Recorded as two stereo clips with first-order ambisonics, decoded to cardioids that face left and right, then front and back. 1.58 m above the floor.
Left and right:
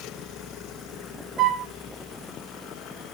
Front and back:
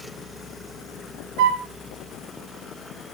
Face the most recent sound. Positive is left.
turn(degrees=-145)